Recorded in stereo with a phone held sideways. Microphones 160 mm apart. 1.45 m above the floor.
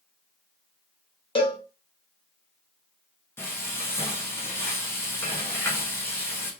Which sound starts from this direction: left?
A cowbell, at 1.4 s.